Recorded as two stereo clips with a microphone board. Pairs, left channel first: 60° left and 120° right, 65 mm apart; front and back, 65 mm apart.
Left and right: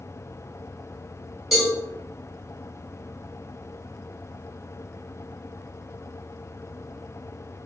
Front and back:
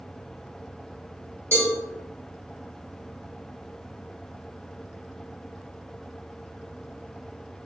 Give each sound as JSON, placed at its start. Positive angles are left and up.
{"t": 1.5, "sound": "a cowbell", "azimuth_deg": 155, "distance_m": 1.4}